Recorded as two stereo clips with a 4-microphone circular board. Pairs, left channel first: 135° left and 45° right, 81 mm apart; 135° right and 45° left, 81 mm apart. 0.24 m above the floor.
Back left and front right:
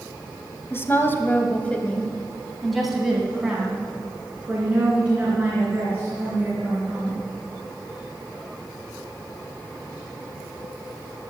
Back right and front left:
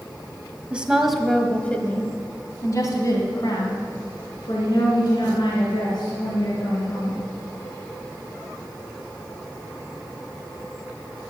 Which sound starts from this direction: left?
A woman speaking, at 0.7 s.